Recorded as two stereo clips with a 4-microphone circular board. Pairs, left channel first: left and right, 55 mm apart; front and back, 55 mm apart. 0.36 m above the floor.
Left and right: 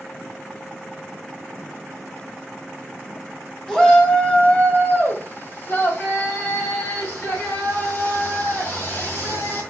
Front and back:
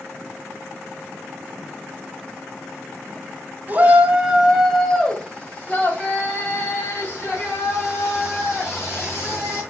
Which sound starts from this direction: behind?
A shout, at 3.7 s.